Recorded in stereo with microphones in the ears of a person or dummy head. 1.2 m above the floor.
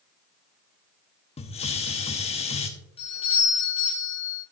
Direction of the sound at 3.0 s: 30° left (ahead or behind).